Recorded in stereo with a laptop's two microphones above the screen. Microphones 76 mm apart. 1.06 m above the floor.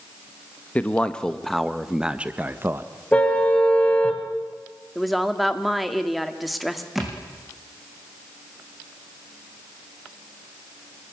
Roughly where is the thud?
Centre.